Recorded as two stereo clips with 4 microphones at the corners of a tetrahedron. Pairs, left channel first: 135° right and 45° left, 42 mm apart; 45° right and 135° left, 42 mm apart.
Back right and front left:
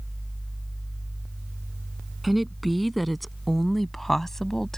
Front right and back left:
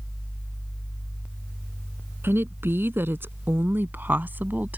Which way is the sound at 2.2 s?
135° left.